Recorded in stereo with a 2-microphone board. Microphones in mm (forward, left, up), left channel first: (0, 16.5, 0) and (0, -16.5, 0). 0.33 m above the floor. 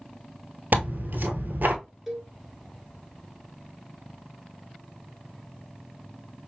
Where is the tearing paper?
65° right (ahead or behind), 1.0 m.